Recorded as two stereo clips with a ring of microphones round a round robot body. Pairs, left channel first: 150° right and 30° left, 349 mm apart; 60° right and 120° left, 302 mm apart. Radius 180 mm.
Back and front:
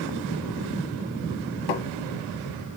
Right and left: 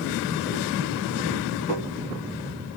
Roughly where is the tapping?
Behind right.